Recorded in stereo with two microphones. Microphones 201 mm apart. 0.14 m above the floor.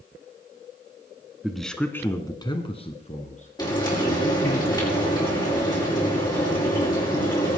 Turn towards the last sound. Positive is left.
turn(degrees=20)  # may be behind; listen again after turning